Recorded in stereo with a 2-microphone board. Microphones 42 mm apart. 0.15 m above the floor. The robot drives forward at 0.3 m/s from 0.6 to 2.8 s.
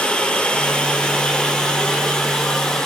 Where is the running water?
25° left (ahead or behind), 1.4 m; by 2.9 s 15° left (ahead or behind), 2.0 m.